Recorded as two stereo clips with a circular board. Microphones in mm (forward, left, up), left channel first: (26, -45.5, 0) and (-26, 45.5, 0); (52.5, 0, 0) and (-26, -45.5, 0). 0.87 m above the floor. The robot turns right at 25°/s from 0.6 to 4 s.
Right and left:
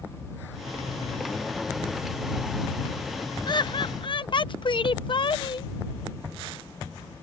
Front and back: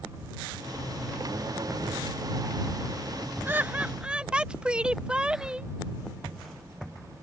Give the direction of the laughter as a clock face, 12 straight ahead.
3 o'clock.